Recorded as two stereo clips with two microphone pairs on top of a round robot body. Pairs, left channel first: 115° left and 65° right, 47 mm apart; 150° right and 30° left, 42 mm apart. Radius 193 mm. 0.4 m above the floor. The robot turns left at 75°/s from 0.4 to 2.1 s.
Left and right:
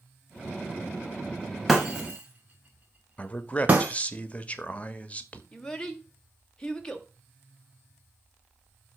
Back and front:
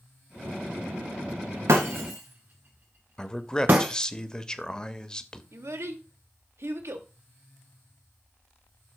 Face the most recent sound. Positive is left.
turn(degrees=35)